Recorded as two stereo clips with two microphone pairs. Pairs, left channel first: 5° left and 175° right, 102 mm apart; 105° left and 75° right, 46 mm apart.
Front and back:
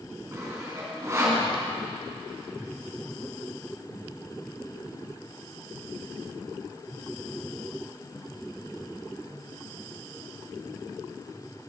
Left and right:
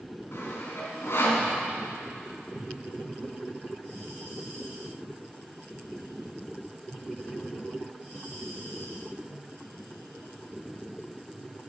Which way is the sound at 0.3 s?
130° left.